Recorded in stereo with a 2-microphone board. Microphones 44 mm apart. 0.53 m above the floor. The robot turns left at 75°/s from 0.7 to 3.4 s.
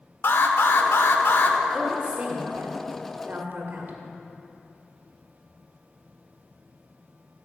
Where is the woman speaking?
Straight ahead, 1.4 m; by 4.0 s 125° right, 1.4 m.